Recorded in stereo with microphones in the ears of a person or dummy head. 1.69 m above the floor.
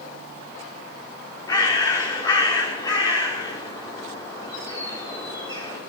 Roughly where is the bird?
Left.